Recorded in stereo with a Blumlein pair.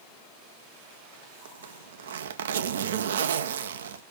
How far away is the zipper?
About 0.6 m.